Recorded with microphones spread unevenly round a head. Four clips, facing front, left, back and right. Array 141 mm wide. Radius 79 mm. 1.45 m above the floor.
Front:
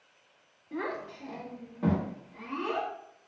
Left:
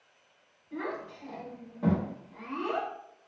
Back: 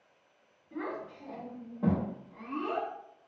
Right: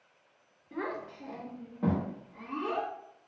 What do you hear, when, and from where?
0.7 s a child speaking: 50° right, 0.8 m; by 2.9 s 175° left, 1.1 m